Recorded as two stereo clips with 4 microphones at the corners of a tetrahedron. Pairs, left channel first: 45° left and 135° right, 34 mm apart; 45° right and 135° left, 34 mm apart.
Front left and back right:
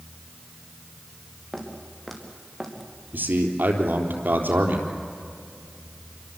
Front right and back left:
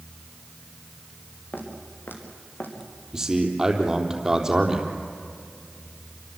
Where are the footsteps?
40° right, 5 m.